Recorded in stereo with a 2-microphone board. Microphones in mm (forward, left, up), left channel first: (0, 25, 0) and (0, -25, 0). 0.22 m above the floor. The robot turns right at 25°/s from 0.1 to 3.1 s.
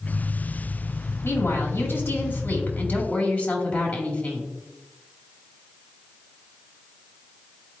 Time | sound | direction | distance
1.2 | a woman speaking | 80° left | 2 m